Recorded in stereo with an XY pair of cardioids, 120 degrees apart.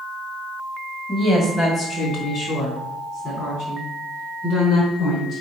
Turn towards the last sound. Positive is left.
turn(degrees=70)